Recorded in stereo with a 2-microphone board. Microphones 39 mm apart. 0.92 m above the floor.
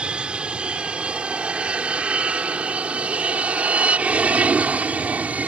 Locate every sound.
0.0 s an aircraft: 25° right (ahead or behind); by 5.5 s 40° right (ahead or behind)